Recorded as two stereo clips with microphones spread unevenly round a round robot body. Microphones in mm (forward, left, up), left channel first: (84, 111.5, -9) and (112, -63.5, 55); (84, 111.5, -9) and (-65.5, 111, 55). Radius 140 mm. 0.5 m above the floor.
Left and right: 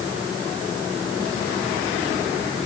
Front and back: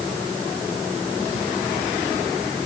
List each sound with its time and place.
Only background noise.